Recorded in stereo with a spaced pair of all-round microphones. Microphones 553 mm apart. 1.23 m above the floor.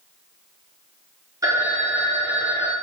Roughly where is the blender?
I don't hear a blender.